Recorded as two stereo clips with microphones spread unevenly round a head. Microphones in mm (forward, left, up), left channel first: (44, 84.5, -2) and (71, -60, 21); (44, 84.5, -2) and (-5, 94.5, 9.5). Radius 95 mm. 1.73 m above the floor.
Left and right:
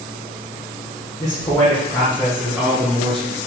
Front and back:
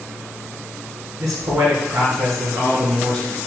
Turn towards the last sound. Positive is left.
turn(degrees=-135)